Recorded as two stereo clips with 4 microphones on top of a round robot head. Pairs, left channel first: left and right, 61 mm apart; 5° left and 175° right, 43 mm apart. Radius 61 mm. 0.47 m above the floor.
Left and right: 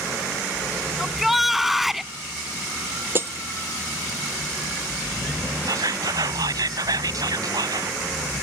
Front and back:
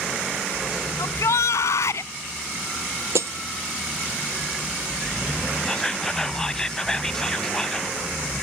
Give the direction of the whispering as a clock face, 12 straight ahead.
2 o'clock.